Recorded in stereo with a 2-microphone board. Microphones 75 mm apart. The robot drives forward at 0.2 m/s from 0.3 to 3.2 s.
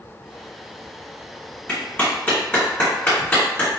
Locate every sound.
1.7 s a clap: 20° left (ahead or behind), 1.7 m